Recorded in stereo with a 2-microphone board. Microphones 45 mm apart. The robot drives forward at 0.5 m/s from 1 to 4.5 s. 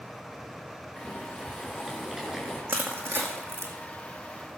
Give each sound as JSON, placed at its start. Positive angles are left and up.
{"t": 1.0, "sound": "boiling", "side_deg": -10, "distance_m": 2.5}
{"t": 2.7, "sound": "crushing", "side_deg": -60, "distance_m": 2.5}